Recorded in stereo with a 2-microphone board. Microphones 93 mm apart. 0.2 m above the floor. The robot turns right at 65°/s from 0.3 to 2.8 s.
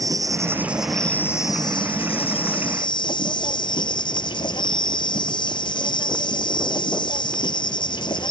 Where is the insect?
40° right; by 8.3 s 125° left.